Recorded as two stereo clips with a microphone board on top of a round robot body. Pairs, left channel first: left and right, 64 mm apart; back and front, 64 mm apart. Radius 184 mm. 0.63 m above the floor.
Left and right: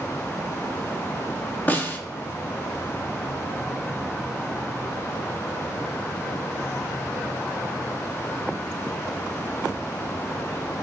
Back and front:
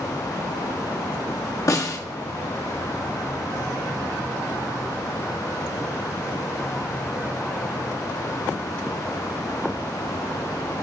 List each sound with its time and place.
1.7 s a snare drum: 150° left, 1.4 m